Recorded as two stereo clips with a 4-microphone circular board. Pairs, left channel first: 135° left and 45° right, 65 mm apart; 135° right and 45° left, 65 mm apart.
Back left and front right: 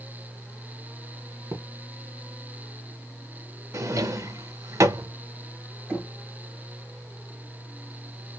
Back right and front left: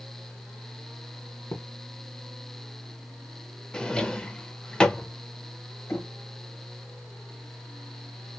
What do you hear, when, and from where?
1.5 s a thud: 90° right, 1.0 m
3.7 s a drawer: 60° right, 0.6 m
5.9 s knocking: 95° right, 1.5 m